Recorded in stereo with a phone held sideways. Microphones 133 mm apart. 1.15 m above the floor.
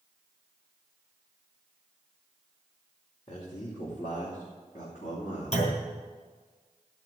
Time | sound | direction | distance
3.3 | a man speaking | 55° left (ahead or behind) | 2.5 m
5.5 | a clunk | 55° left (ahead or behind) | 4 m